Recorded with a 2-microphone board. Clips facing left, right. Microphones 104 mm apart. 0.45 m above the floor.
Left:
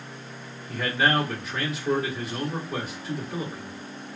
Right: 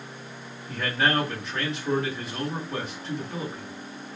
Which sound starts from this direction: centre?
A man speaking, at 0.7 s.